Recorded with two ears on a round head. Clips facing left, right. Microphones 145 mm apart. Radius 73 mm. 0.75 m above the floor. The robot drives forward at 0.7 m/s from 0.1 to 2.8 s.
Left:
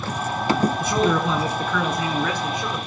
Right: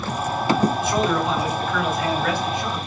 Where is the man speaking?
80° left, 7.5 m; by 2.8 s 85° left, 7.5 m.